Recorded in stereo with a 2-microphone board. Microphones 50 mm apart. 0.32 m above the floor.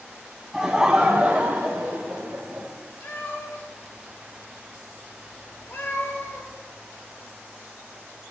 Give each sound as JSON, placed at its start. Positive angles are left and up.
{"t": 0.5, "sound": "laughter", "side_deg": -10, "distance_m": 2.0}
{"t": 3.0, "sound": "a cat meowing", "side_deg": 60, "distance_m": 5.5}